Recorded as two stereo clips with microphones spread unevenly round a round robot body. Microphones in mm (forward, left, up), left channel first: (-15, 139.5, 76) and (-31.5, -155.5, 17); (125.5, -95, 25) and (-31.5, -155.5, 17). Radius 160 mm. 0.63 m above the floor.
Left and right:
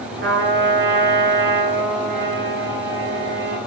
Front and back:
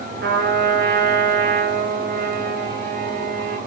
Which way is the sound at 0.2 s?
150° right.